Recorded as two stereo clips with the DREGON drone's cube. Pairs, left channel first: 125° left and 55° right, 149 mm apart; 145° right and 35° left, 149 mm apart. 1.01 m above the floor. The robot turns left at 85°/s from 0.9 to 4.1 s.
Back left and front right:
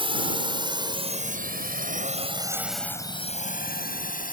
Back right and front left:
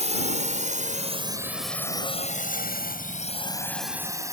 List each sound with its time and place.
0.0 s a drone: 5° right; by 4.3 s 105° left